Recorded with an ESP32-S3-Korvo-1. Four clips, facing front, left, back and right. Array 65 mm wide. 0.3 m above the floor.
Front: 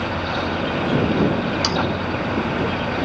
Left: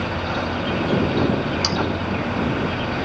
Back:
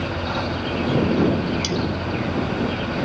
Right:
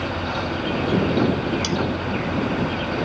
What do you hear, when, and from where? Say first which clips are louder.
1.6 s sawing: even, front 3 dB; 25° left